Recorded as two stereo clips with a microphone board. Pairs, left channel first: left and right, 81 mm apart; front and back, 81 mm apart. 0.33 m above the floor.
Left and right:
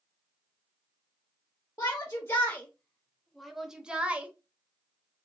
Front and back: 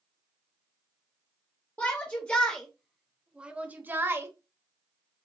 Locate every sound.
1.8 s a shout: 50° left, 1.2 m; by 4.3 s 150° right, 1.0 m